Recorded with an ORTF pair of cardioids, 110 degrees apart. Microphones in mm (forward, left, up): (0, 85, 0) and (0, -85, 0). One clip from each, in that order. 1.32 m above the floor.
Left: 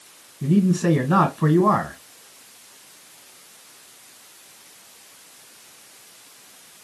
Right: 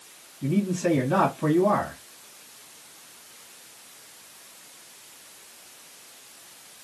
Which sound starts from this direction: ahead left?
A man speaking, at 0.4 s.